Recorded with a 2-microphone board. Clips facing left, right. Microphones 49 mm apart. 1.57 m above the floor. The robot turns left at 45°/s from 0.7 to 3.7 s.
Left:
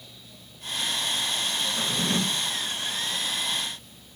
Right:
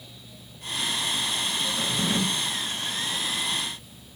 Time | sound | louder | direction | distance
1.8 | a drawer | even | 20° left (ahead or behind) | 0.7 m